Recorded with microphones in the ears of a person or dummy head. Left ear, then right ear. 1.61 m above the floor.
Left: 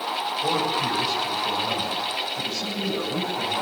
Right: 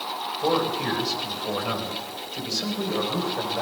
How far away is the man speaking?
About 9.5 m.